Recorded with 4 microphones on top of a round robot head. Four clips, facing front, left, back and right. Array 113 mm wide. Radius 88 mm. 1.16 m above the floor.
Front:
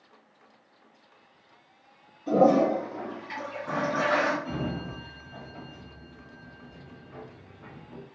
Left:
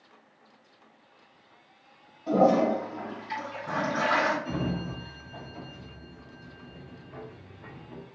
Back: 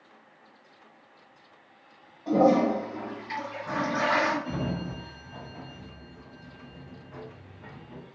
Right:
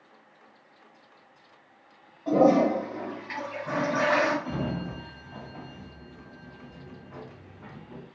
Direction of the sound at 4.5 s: 95° right.